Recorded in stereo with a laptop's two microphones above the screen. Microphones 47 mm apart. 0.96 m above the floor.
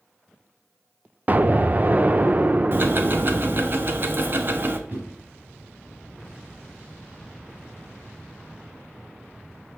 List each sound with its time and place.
1.3 s an explosion: 35° right (ahead or behind), 0.6 m
2.7 s ticking: 45° right (ahead or behind), 1.1 m
4.9 s a whoosh: 50° right (ahead or behind), 3.5 m